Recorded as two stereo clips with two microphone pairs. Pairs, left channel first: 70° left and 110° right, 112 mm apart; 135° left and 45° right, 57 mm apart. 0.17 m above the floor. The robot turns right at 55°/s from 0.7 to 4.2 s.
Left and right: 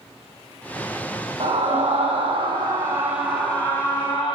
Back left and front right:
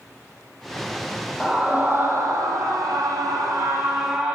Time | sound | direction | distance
1.4 | a scream | 125° right | 6 m